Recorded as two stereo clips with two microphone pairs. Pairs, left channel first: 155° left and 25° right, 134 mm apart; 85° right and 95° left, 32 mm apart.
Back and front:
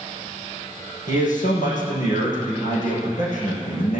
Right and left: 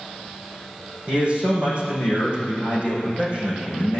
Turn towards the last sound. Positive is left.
turn(degrees=145)